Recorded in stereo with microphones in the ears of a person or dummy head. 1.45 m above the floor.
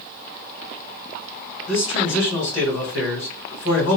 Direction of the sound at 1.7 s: 75° left (ahead or behind).